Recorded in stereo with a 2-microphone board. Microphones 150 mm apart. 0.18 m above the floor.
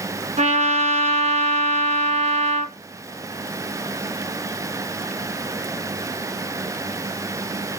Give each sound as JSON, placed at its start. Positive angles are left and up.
{"t": 0.4, "sound": "a trumpet", "side_deg": -50, "distance_m": 0.9}